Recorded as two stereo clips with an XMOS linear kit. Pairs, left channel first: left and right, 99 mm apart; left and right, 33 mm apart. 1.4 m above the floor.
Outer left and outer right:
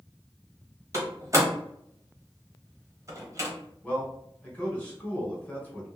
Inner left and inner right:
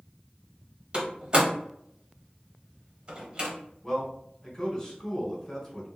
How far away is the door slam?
About 0.8 m.